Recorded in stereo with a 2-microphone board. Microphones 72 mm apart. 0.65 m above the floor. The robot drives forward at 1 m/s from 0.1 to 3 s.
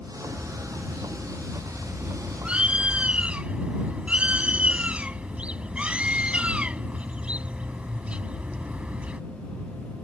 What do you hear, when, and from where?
0.2 s a bird: 10° right (ahead or behind); by 9.2 s 15° right (ahead or behind)